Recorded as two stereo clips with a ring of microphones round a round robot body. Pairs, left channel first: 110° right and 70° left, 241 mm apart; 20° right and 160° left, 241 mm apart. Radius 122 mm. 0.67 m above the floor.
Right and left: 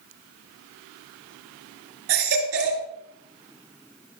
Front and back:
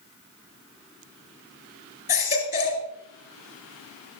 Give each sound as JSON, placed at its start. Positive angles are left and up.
{"t": 2.1, "sound": "a baby crying", "azimuth_deg": 30, "distance_m": 3.0}